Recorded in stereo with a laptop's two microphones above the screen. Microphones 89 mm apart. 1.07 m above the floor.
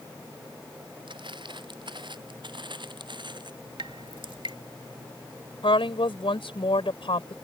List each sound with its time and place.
1.1 s footsteps: 65° right (ahead or behind); by 3.5 s 60° right (ahead or behind)
3.8 s dripping: 70° right (ahead or behind)
5.6 s a woman speaking: 90° left